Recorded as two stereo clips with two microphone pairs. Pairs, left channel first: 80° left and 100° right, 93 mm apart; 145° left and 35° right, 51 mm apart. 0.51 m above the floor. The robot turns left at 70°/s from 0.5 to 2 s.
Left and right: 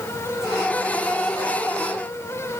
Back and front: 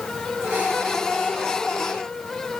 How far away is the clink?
I don't hear a clink.